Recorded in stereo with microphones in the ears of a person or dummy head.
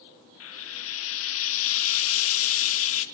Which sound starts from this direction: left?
Frying, at 0.4 s.